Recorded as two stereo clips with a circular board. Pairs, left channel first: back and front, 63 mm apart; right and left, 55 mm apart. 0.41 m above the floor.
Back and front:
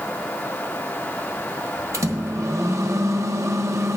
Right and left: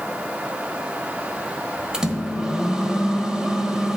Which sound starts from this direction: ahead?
A microwave, at 1.9 s.